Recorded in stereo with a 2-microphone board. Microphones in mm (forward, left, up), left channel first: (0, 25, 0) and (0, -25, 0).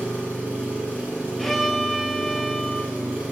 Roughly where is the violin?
Centre.